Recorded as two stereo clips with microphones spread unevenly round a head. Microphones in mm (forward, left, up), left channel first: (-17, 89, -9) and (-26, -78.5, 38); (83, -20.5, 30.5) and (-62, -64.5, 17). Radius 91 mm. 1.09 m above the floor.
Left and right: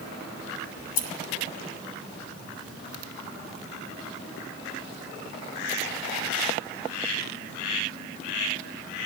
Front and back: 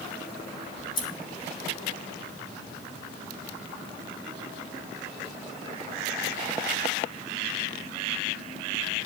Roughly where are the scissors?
Left.